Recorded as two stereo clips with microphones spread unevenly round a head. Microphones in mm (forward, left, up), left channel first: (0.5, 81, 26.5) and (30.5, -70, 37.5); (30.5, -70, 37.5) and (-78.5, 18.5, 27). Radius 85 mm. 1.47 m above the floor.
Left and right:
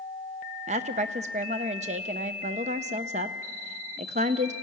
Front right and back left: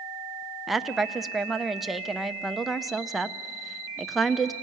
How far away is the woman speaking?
About 0.7 m.